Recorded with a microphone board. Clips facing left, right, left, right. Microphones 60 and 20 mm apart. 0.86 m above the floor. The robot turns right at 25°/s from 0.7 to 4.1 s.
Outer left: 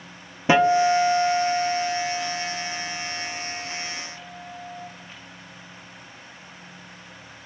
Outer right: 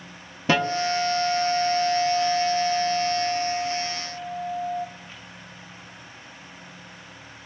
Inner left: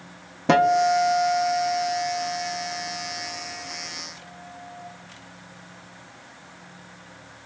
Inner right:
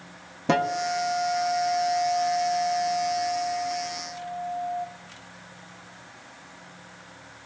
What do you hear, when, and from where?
0.5 s a guitar: 160° left, 0.5 m; by 4.9 s 115° right, 0.5 m